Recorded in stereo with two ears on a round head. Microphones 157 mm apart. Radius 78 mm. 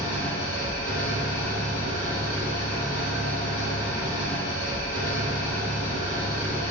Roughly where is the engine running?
Left.